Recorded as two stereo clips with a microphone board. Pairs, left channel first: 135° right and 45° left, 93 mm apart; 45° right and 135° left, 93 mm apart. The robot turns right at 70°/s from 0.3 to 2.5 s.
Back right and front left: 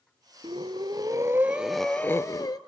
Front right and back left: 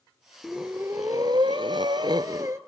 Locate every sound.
0.4 s breathing: 45° left, 0.8 m; by 2.6 s 170° right, 0.8 m